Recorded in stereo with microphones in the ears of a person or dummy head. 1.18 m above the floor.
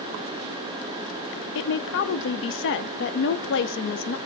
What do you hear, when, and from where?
1.6 s a woman speaking: 55° left (ahead or behind), 0.5 m